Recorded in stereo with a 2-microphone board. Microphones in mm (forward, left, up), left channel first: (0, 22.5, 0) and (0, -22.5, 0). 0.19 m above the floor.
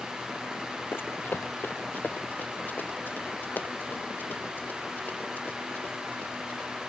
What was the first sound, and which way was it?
Running footsteps, 60° left (ahead or behind).